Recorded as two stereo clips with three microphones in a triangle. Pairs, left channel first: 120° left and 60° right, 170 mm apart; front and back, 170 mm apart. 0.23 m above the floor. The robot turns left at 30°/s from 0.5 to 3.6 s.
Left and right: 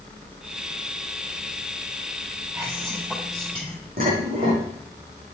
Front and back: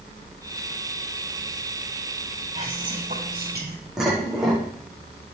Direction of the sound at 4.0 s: 95° right.